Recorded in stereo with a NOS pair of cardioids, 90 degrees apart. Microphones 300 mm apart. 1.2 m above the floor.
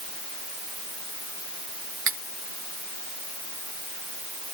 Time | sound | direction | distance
2.1 | cutlery clinking | 50° right | ?